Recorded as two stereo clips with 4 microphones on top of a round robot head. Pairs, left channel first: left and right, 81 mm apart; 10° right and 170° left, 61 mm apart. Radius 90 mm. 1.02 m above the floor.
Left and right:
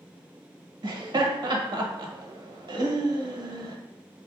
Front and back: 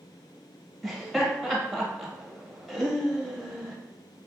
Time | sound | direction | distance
0.8 | laughter | 100° right | 1.2 m